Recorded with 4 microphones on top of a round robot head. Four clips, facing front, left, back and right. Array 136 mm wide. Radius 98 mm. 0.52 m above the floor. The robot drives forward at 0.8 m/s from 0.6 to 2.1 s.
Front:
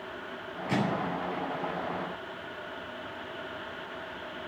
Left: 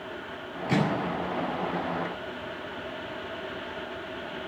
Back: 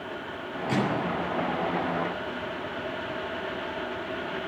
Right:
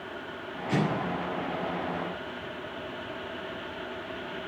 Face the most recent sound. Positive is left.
turn(degrees=90)